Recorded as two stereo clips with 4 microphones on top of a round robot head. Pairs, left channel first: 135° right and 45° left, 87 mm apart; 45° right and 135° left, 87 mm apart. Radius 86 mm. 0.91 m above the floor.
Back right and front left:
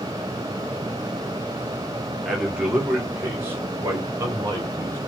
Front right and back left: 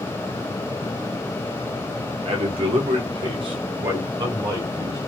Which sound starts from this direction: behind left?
A man speaking, at 2.2 s.